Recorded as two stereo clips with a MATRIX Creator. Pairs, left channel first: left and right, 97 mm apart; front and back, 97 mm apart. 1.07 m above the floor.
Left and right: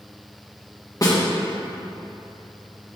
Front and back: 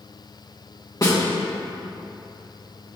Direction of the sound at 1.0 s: 45° left.